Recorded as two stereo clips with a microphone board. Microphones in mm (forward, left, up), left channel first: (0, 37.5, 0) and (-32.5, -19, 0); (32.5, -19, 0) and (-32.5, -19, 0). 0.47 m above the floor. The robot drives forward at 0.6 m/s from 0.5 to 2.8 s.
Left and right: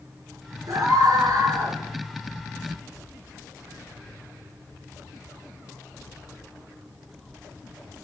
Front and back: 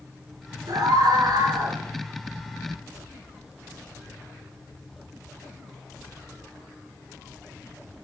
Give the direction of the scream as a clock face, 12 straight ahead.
5 o'clock.